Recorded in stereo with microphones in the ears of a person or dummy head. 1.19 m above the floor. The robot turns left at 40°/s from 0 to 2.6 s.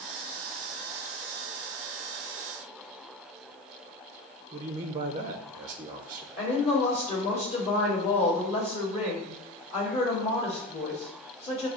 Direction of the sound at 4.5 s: 20° right (ahead or behind).